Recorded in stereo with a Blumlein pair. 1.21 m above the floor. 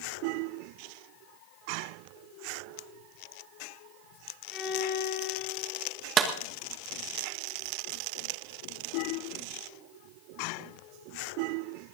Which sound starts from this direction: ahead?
A violin, at 4.5 s.